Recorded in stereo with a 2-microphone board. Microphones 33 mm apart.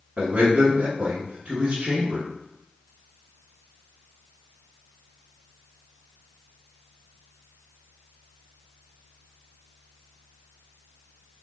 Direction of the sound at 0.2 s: 35° right (ahead or behind).